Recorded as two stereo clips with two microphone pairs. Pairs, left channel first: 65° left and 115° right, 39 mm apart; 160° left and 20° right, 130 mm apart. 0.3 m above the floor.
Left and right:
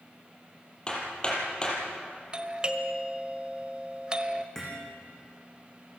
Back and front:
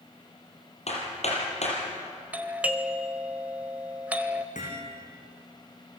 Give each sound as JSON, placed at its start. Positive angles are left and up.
{"t": 0.9, "sound": "hammering", "azimuth_deg": 130, "distance_m": 6.0}
{"t": 2.3, "sound": "a doorbell", "azimuth_deg": -85, "distance_m": 1.5}
{"t": 4.5, "sound": "hammering", "azimuth_deg": 145, "distance_m": 7.5}